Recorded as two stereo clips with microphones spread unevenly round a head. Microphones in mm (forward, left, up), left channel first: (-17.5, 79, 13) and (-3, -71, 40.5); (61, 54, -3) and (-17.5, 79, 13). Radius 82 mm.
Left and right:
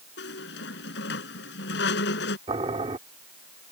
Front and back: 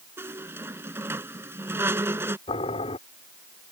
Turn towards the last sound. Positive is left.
turn(degrees=-25)